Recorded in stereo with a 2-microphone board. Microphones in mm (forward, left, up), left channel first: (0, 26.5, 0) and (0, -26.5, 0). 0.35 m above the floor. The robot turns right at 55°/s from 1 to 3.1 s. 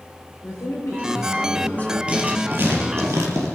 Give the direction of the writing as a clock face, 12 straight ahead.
5 o'clock.